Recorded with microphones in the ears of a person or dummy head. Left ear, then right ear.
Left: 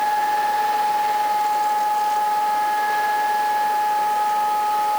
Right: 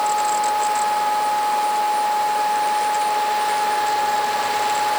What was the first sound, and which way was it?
Only background noise.